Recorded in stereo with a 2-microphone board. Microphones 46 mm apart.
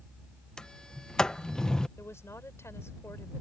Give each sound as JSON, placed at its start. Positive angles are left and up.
{"t": 0.6, "sound": "a sliding door", "side_deg": 15}
{"t": 2.0, "sound": "a woman speaking", "side_deg": 65}